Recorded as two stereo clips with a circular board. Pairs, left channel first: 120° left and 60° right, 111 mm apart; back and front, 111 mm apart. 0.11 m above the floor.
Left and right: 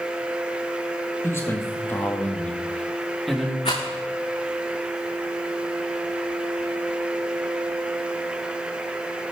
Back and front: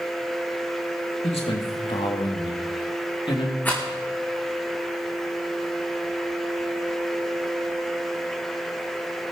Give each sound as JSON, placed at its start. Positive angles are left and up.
{"t": 1.2, "sound": "a man speaking", "azimuth_deg": 180, "distance_m": 3.0}
{"t": 3.6, "sound": "a rattle", "azimuth_deg": 105, "distance_m": 4.5}